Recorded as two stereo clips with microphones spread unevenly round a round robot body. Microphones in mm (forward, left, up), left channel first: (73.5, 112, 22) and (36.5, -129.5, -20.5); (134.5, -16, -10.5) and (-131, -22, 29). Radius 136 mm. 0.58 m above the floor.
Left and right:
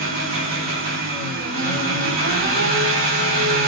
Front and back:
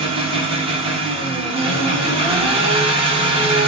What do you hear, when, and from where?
0.0 s an engine running: 105° right, 0.9 m